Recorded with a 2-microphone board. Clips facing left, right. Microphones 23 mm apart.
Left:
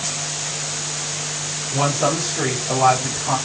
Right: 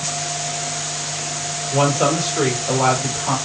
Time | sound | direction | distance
1.7 | a woman speaking | 65° right (ahead or behind) | 4.5 m